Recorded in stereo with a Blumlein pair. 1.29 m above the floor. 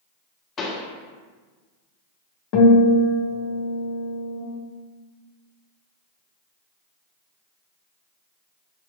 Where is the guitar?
40° left, 0.9 m.